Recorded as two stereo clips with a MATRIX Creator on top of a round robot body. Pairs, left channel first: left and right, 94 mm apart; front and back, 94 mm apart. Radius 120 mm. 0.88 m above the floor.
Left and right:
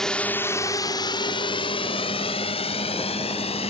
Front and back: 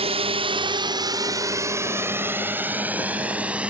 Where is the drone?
175° left; by 3.7 s 100° left.